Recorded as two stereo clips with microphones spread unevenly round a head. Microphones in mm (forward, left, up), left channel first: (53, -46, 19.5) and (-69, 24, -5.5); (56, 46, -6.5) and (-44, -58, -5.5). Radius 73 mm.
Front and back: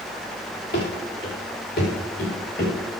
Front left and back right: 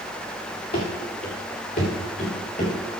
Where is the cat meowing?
No cat meowing in this recording.